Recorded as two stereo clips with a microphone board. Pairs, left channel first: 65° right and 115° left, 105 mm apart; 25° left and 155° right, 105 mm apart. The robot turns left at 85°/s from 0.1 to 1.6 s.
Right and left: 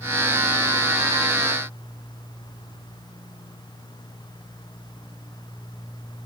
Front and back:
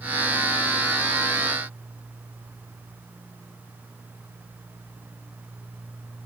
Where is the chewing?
No chewing in this recording.